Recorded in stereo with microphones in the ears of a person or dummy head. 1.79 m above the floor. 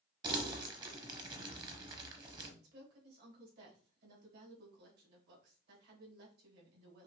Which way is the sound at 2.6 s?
65° right (ahead or behind).